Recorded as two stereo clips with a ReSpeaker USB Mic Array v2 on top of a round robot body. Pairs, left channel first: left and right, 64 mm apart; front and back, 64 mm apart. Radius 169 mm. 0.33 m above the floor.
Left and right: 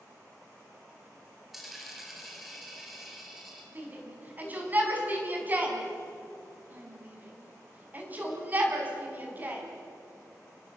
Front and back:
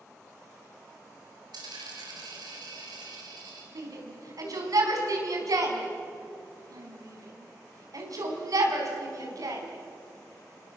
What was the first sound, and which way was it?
A dropped coin, straight behind.